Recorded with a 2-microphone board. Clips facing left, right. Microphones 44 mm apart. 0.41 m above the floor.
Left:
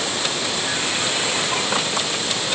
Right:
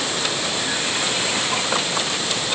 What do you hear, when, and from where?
Only background noise.